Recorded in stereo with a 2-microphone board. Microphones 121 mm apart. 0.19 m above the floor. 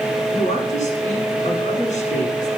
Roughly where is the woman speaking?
Left.